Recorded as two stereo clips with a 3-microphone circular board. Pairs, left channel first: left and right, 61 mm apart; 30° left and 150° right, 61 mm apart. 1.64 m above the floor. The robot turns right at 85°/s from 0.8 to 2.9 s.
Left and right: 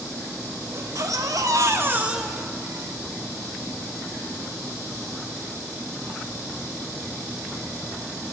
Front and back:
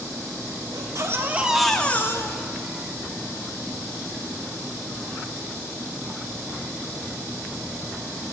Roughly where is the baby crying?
Behind right.